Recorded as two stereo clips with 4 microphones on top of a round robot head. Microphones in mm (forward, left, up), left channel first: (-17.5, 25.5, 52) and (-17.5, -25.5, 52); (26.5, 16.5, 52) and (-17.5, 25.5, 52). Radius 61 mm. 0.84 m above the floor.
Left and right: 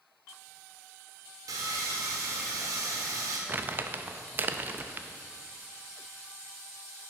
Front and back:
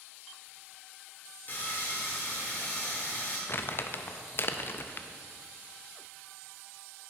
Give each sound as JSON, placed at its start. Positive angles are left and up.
{"t": 1.5, "sound": "sawing", "azimuth_deg": -65, "distance_m": 1.2}
{"t": 3.5, "sound": "crumpling", "azimuth_deg": -40, "distance_m": 0.5}